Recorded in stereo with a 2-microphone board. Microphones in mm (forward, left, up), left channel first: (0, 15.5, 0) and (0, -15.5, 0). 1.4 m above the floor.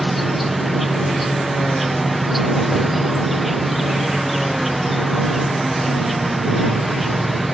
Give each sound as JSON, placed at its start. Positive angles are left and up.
{"t": 0.0, "sound": "an insect", "side_deg": -5}